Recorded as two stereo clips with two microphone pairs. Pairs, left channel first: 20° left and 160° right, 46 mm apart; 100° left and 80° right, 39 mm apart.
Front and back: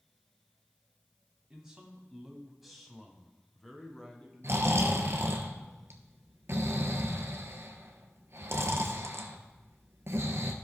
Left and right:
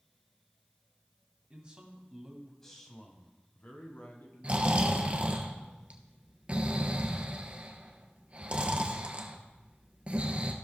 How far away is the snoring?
About 1.1 m.